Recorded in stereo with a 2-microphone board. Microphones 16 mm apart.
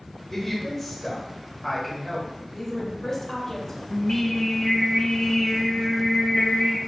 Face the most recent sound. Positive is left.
turn(degrees=40)  # may be behind; listen again after turning